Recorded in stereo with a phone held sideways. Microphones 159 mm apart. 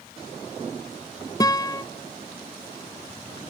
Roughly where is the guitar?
Left.